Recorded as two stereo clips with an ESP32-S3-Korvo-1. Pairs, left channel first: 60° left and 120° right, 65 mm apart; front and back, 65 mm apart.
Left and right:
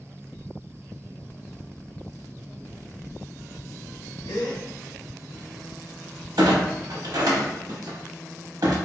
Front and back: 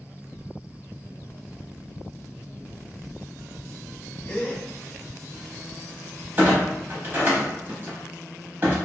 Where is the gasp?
65° left, 0.7 m.